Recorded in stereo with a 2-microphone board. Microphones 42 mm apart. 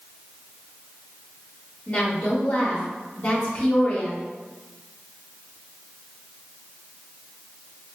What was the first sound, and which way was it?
A woman speaking, 40° left (ahead or behind).